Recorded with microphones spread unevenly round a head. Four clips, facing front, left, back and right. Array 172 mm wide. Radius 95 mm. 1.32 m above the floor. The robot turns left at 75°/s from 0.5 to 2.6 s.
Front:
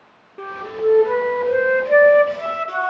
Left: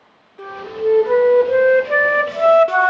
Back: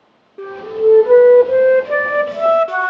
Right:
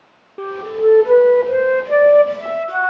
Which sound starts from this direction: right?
A flute, at 0.4 s.